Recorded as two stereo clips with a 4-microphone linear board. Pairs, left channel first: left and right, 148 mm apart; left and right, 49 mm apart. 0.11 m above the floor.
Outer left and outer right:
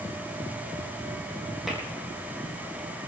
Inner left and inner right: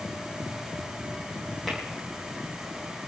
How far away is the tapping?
About 4.5 m.